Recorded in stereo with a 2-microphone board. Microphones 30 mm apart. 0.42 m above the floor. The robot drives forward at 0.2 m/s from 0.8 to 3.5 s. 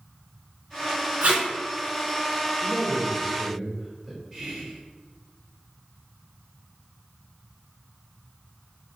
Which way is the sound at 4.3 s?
15° right (ahead or behind).